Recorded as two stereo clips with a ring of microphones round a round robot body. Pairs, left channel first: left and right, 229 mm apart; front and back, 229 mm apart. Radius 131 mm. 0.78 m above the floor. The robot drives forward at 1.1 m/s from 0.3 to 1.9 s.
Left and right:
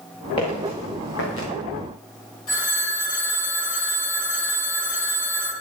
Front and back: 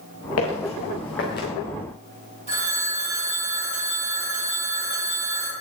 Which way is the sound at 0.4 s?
20° left.